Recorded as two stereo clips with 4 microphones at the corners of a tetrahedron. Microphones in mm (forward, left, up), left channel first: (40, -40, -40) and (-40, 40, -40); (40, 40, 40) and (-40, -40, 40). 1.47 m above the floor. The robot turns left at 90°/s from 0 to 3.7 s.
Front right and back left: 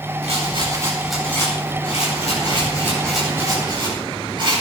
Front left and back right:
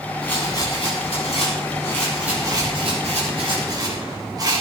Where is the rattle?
130° left, 9.5 m; by 4.6 s 175° left, 9.5 m.